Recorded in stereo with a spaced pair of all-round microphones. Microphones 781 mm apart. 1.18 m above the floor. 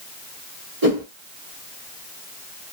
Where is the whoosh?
25° right (ahead or behind), 1.1 m.